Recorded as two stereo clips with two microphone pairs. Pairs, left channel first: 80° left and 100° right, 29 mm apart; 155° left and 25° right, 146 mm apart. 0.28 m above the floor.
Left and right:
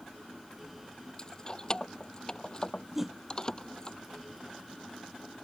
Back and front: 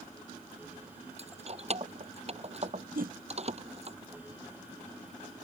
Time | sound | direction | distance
1.2 | keys jangling | 20° left | ?
3.0 | a whoosh | 15° right | ?